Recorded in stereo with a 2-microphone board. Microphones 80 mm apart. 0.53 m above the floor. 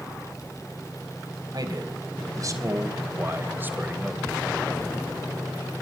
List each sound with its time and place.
1.5 s a man speaking: 55° right (ahead or behind), 3.5 m; by 4.4 s 10° right (ahead or behind), 2.5 m